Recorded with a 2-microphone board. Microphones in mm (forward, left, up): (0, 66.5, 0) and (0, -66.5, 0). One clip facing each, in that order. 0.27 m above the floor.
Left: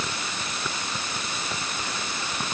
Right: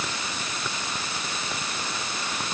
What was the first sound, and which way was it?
Only background noise.